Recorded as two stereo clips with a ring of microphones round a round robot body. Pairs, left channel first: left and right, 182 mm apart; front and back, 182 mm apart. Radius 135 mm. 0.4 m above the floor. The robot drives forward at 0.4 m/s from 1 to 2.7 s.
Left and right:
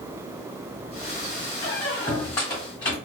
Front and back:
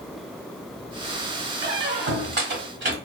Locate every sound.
1.6 s a squeak: 160° left, 0.9 m; by 3.0 s 170° left, 1.3 m